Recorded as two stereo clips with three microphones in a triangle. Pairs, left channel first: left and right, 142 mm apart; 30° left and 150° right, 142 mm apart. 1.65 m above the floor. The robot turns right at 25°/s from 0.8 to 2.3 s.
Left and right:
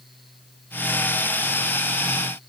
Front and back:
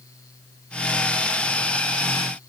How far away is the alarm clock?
No alarm clock in this recording.